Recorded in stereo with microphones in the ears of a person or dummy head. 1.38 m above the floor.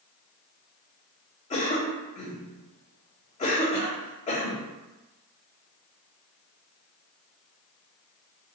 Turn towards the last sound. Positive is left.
turn(degrees=35)  # may be behind; listen again after turning